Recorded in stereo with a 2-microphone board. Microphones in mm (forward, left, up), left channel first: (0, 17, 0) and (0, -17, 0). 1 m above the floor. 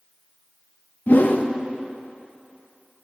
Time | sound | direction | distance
1.1 | a whoosh | 60° left (ahead or behind) | 0.6 m